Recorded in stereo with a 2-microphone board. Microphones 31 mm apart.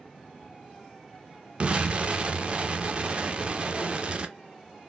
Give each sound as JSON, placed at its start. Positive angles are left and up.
{"t": 1.6, "sound": "an explosion", "side_deg": -30, "distance_m": 0.5}